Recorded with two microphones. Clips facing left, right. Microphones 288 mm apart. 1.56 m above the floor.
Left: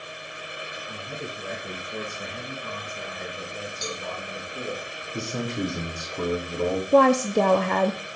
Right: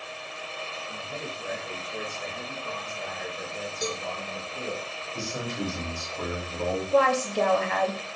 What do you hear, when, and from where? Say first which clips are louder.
0.9 s a man speaking: left 2 dB; 70° left (ahead or behind), 2.5 m; by 4.8 s 20° left (ahead or behind), 3 m
3.8 s a cowbell: right 5 dB; 60° right (ahead or behind), 1.0 m
5.1 s a man speaking: left 4 dB; 45° left (ahead or behind), 3.5 m
6.9 s a woman speaking: left 6 dB; 55° left (ahead or behind), 0.5 m